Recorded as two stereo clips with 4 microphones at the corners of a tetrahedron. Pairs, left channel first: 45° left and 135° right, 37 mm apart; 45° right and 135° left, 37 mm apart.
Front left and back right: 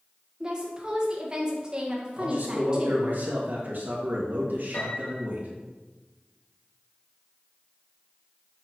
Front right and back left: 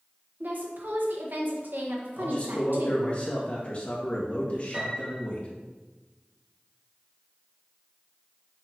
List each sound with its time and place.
0.4 s a woman speaking: 160° left, 1.5 m
2.2 s a man speaking: 100° right, 1.8 m
4.7 s a piano: 75° left, 1.8 m